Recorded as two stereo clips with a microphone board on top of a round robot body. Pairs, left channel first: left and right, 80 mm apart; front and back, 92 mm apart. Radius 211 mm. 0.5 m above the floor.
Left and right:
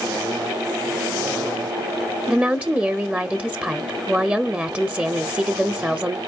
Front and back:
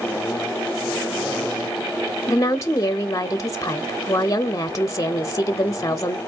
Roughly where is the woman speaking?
Ahead right.